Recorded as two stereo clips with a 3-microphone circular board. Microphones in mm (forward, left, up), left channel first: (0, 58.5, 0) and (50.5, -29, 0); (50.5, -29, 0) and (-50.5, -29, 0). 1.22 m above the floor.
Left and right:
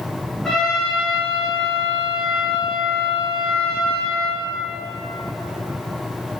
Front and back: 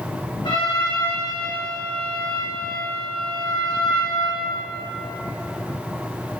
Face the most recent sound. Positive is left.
turn(degrees=35)